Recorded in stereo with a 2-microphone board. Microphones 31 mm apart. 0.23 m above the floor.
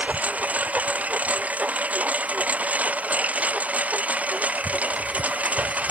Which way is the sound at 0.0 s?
60° right (ahead or behind).